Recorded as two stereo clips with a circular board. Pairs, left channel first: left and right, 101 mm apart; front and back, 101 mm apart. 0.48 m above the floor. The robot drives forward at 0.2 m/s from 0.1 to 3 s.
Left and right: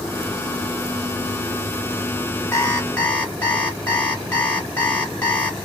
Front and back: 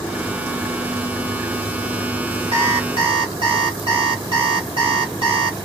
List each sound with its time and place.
2.5 s an alarm clock: 160° left, 1.5 m